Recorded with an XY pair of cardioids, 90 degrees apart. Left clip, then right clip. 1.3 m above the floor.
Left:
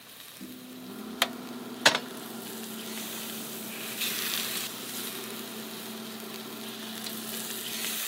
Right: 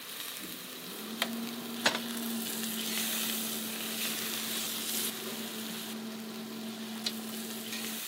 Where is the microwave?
65° left, 0.9 m.